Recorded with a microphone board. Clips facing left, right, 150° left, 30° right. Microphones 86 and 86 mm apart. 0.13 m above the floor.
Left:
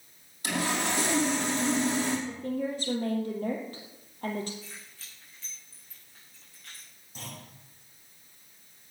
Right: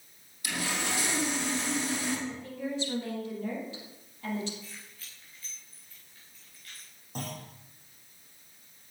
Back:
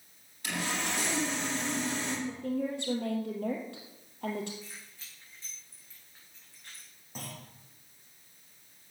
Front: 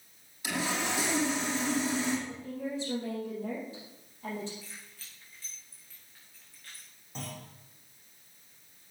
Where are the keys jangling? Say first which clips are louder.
Left 1 dB, back 1 dB; 80° left, 7 m.